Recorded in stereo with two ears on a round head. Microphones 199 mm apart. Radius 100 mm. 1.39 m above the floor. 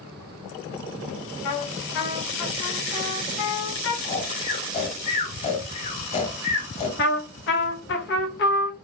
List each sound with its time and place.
1.4 s a trumpet: 70° left (ahead or behind), 1.8 m
4.0 s snoring: 30° left (ahead or behind), 1.3 m
7.0 s a trumpet: 50° left (ahead or behind), 1.0 m